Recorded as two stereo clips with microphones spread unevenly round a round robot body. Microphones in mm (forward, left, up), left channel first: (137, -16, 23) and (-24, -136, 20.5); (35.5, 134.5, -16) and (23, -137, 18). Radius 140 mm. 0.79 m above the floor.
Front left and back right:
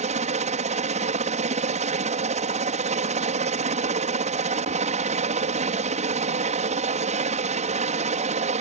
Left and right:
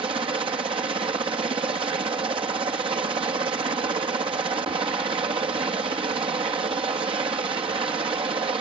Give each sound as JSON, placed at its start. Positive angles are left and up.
{"t": 0.0, "sound": "a helicopter", "azimuth_deg": -160}